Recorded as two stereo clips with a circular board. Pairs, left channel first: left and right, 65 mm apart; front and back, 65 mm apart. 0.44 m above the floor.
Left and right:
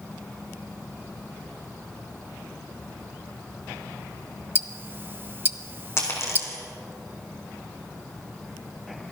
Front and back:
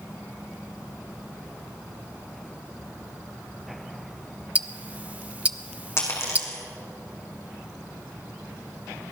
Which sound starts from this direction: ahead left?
A dropped coin, at 6.0 s.